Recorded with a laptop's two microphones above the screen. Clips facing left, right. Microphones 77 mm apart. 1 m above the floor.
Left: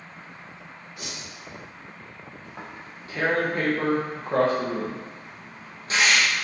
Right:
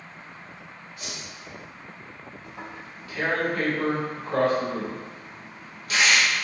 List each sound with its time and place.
1.0 s a whoosh: 85° left, 1.1 m
2.4 s tearing paper: 35° left (ahead or behind), 0.7 m